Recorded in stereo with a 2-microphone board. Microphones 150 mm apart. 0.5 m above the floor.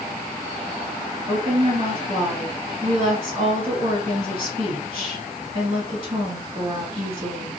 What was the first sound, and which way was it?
A woman speaking, 45° right (ahead or behind).